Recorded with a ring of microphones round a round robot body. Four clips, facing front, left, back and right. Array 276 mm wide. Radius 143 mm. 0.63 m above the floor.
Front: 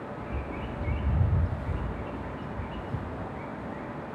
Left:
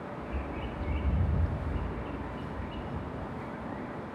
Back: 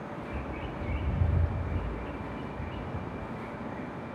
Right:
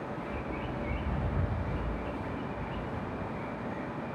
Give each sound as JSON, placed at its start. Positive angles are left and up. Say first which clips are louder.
{"t": 0.2, "sound": "a bird", "louder": "right 1 dB, front 1 dB", "azimuth_deg": 25, "distance_m": 1.6}